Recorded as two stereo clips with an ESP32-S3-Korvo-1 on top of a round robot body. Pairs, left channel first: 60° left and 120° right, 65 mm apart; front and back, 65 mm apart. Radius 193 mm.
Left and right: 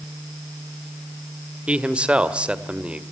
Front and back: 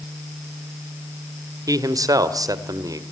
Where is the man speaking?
170° left, 2 m.